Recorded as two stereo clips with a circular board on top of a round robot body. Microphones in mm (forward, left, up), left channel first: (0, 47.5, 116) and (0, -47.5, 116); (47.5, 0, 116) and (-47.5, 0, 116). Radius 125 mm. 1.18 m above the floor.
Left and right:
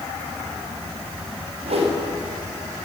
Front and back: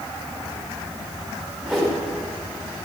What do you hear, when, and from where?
1.6 s a whoosh: 90° right, 3 m